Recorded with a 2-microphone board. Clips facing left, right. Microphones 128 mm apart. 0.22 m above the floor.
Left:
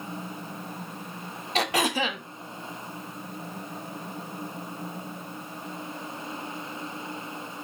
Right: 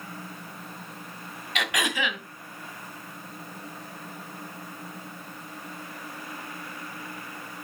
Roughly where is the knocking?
No knocking in this recording.